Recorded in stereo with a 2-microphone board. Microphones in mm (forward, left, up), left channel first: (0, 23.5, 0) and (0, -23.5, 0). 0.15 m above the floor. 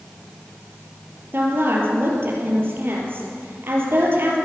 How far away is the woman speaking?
About 4 m.